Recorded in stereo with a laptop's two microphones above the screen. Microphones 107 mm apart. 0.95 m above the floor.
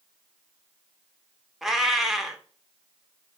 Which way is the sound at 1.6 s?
Centre (ahead or behind).